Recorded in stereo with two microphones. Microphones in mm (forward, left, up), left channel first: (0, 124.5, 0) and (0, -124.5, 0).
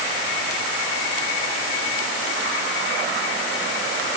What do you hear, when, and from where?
Only background noise.